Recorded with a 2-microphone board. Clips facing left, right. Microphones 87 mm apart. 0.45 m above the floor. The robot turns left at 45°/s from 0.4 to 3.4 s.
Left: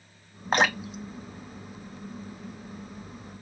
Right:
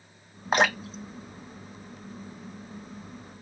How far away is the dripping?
About 0.5 m.